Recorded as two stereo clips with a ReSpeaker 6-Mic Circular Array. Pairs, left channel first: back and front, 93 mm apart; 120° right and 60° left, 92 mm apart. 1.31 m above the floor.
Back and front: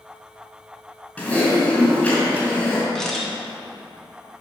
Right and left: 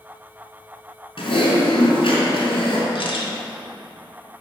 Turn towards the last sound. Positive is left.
turn(degrees=-95)